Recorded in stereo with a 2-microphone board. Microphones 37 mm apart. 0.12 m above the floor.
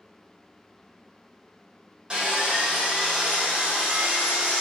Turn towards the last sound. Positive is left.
turn(degrees=-25)  # may be behind; listen again after turning